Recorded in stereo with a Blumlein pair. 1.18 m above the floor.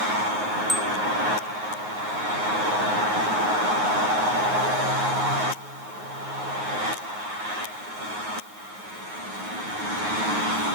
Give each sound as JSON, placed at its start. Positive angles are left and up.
{"t": 0.7, "sound": "a bicycle bell", "azimuth_deg": 0}